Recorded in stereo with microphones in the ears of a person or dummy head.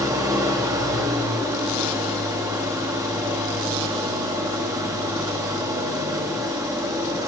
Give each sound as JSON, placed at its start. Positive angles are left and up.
{"t": 0.0, "sound": "an engine running", "side_deg": -10, "distance_m": 0.8}